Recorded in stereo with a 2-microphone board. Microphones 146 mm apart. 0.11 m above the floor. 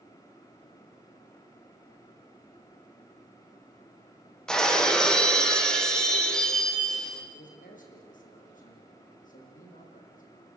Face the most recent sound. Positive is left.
turn(degrees=60)  # may be behind; listen again after turning